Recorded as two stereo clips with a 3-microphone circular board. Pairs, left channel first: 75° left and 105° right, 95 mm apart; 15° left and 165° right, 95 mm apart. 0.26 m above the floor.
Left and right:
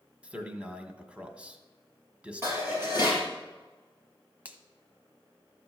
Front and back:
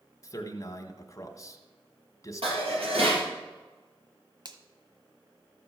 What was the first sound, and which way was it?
A man speaking, 30° right.